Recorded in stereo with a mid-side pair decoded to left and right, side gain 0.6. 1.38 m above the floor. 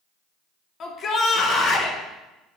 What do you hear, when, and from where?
0.8 s a shout: 40° left, 0.8 m